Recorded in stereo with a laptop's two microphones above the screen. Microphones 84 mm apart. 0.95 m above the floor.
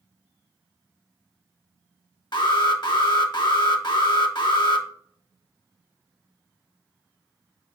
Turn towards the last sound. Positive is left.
turn(degrees=60)  # may be behind; listen again after turning